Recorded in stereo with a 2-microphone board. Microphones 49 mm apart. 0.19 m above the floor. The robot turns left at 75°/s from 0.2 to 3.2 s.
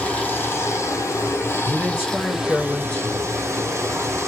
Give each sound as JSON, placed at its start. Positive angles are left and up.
{"t": 0.0, "sound": "running water", "azimuth_deg": 155, "distance_m": 1.1}
{"t": 1.6, "sound": "a man speaking", "azimuth_deg": -115, "distance_m": 1.8}